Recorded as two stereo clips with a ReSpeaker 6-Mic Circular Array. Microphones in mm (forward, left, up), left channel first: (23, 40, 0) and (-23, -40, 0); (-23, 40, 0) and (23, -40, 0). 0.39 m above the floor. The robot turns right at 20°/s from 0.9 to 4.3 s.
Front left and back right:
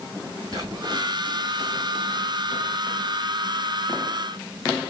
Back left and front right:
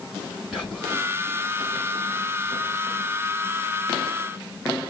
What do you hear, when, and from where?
0.5 s whispering: 145° right, 1.9 m; by 1.0 s 140° right, 1.9 m